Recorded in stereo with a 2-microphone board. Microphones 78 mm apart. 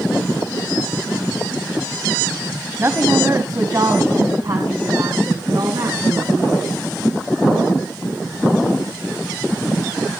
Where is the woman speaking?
35° right (ahead or behind), 1.4 m; by 6.6 s 60° right (ahead or behind), 3 m.